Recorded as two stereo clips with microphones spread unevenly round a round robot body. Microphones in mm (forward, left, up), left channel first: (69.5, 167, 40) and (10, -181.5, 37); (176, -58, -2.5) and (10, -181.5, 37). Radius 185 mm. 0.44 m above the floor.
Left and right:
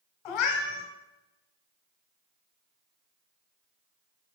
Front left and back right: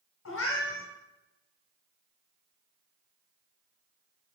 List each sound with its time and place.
0.2 s a cat meowing: 75° left, 1.2 m